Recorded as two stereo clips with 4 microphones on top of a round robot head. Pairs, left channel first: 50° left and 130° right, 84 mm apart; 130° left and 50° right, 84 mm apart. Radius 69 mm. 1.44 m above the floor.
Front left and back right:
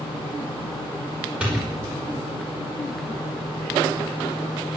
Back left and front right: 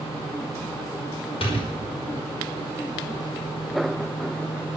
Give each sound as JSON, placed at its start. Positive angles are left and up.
{"t": 1.4, "sound": "a door slam", "azimuth_deg": 155, "distance_m": 5.0}